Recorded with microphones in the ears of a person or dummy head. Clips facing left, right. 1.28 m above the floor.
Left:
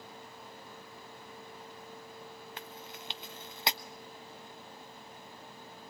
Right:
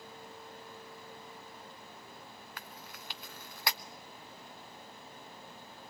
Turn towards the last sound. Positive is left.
turn(degrees=25)  # may be behind; listen again after turning